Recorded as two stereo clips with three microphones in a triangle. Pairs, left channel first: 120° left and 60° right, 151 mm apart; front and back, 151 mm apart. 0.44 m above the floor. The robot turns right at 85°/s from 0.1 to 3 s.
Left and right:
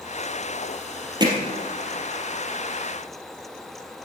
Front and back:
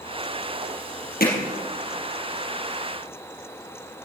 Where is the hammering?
Straight ahead, 3.5 m; by 1.3 s 15° left, 3.5 m.